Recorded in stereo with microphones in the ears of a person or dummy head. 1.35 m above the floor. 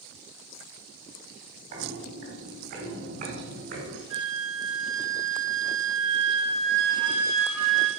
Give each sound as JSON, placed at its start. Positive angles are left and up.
{"t": 1.7, "sound": "footsteps", "side_deg": -50, "distance_m": 3.0}
{"t": 4.1, "sound": "a flute", "side_deg": -70, "distance_m": 4.5}